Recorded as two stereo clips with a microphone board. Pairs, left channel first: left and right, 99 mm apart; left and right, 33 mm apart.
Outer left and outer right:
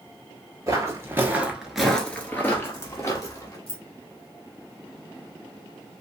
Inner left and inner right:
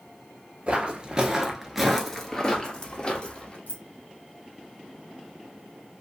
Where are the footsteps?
35° right (ahead or behind), 1.1 m; by 3.6 s 35° left (ahead or behind), 1.6 m.